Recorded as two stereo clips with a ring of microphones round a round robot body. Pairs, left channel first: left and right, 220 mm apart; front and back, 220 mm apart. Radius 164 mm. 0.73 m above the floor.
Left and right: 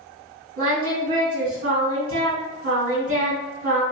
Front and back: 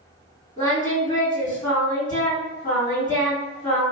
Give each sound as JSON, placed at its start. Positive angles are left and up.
{"t": 0.6, "sound": "singing", "azimuth_deg": -75, "distance_m": 1.9}